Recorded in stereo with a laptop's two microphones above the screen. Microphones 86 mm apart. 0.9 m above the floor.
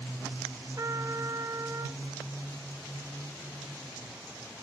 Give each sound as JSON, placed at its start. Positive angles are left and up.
{"t": 0.8, "sound": "a trumpet", "side_deg": -40, "distance_m": 1.1}